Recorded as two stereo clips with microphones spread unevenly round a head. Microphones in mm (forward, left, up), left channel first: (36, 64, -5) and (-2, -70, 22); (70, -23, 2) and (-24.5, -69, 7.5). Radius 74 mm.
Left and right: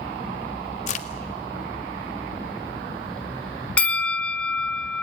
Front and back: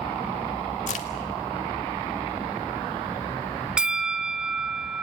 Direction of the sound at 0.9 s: 40° left.